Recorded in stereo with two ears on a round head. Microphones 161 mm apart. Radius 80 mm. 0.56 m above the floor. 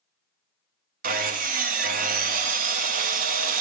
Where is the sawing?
45° right (ahead or behind), 0.9 m.